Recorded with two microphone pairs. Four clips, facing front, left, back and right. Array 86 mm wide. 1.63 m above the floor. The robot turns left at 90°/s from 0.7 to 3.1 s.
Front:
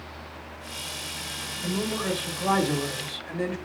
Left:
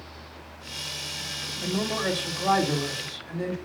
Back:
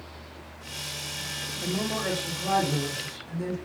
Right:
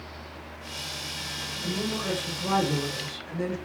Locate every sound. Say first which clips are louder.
1.6 s a man speaking: left 3 dB, front 1 dB; 140° left, 7.5 m; by 3.6 s 5° left, 7.5 m